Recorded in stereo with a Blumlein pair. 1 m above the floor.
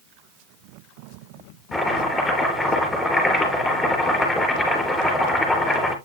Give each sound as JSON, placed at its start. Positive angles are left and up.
{"t": 1.7, "sound": "chopping", "azimuth_deg": 5, "distance_m": 4.0}